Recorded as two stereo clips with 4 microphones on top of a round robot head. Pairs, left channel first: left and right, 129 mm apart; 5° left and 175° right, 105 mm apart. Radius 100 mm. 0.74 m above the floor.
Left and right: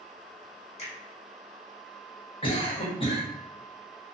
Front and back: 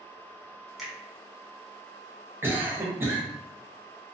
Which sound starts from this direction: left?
A finger snap, at 0.8 s.